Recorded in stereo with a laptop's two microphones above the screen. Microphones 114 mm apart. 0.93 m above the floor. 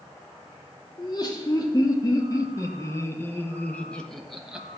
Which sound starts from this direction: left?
Laughter, at 1.0 s.